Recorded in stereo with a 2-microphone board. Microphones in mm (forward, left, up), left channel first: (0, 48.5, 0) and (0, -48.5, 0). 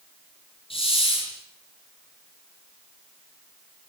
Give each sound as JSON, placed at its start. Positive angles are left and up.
{"t": 0.7, "sound": "a hiss", "side_deg": 70, "distance_m": 8.0}